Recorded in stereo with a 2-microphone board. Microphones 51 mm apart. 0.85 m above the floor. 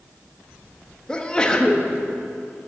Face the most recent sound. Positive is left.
turn(degrees=15)  # may be behind; listen again after turning